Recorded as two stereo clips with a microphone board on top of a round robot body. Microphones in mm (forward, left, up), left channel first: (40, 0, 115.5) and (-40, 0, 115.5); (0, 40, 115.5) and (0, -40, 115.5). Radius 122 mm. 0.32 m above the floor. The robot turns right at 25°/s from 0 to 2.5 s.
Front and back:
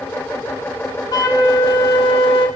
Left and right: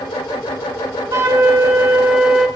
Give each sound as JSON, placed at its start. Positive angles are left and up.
{"t": 1.1, "sound": "a flute", "azimuth_deg": -40, "distance_m": 1.7}